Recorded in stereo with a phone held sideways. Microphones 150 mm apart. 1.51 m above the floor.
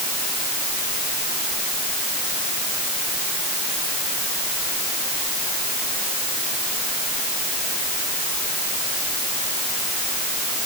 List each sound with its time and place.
Only background noise.